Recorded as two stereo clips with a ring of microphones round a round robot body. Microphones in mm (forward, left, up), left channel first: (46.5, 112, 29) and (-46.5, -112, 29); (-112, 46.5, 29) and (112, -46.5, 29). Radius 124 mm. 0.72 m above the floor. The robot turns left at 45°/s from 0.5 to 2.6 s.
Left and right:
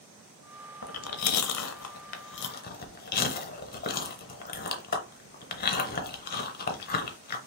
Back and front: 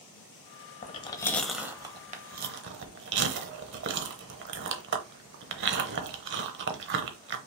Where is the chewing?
100° left, 0.8 m; by 7.4 s 20° left, 0.8 m.